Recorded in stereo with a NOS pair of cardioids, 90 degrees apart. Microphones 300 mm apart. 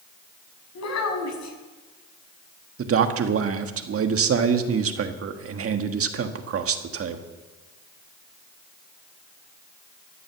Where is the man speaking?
50° right, 1.6 m.